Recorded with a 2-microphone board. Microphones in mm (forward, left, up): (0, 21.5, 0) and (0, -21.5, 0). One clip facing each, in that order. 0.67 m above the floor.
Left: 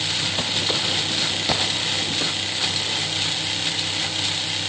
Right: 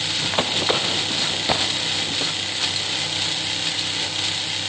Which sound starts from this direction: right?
Running footsteps, at 0.2 s.